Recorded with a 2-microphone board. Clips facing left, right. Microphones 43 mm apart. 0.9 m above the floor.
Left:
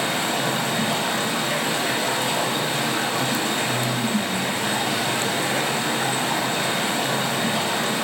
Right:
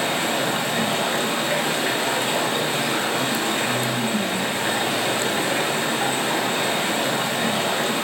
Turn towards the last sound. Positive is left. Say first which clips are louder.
# right 1 dB
turn(degrees=-30)  # may be behind; listen again after turning